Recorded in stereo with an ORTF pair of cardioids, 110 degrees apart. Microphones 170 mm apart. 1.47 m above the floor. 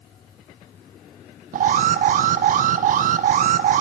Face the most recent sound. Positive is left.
turn(degrees=-50)